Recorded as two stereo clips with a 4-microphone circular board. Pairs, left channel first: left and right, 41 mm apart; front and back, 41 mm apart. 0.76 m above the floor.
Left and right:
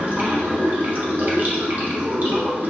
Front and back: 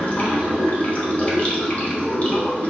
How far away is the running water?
About 1.1 m.